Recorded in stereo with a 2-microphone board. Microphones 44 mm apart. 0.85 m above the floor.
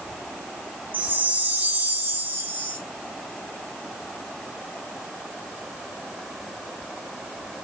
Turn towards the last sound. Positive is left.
turn(degrees=-45)  # may be behind; listen again after turning